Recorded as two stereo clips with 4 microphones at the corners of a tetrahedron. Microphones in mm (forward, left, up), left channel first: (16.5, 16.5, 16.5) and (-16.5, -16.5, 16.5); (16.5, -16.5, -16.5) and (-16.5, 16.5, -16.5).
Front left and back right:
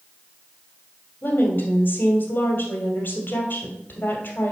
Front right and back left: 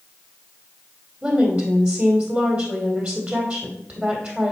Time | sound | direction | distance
1.2 | a woman speaking | 80° left | 2.5 m